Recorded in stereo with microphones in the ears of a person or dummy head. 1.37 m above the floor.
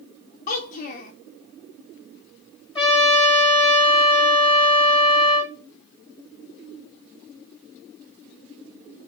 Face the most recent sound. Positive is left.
turn(degrees=30)  # may be behind; listen again after turning